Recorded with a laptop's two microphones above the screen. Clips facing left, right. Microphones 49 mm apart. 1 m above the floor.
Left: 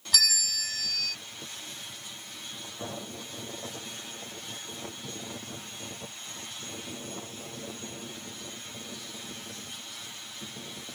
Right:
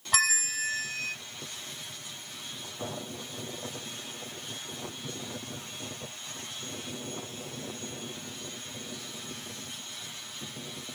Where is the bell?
40° right (ahead or behind).